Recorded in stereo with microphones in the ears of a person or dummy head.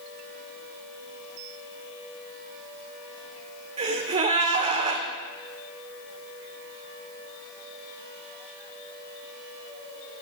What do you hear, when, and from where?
3.8 s a gasp: 30° right (ahead or behind), 2.5 m